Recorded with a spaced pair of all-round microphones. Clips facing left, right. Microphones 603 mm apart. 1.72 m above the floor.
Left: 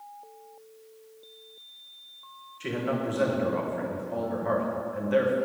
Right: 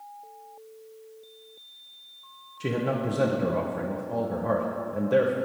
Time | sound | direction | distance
2.6 | a man speaking | 60° right (ahead or behind) | 1.4 m